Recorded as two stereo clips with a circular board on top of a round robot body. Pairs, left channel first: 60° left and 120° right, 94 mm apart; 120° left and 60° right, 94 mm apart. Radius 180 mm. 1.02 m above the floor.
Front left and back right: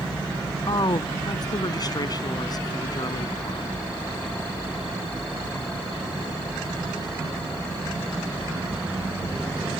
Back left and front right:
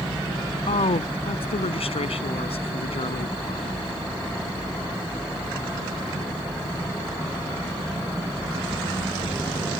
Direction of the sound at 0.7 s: 105° left.